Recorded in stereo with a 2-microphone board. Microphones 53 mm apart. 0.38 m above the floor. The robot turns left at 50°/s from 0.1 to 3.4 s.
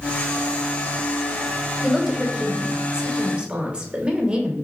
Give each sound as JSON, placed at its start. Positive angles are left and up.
{"t": 1.8, "sound": "a woman speaking", "side_deg": 0, "distance_m": 0.8}